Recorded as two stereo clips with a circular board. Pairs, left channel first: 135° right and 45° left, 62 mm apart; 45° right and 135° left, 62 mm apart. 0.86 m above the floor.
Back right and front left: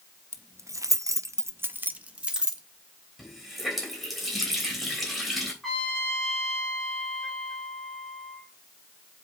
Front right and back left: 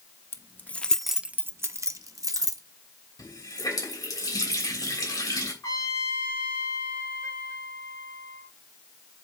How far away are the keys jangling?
About 0.7 m.